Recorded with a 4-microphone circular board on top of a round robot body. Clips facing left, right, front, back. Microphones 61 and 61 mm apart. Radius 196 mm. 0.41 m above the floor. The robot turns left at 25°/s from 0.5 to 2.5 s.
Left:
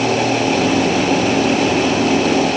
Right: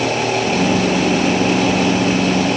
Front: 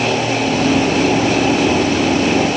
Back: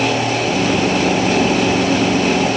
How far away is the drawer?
No drawer in this recording.